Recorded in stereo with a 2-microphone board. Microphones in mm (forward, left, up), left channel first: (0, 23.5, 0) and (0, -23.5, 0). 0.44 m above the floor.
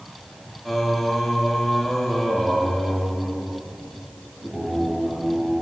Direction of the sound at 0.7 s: 5° left (ahead or behind).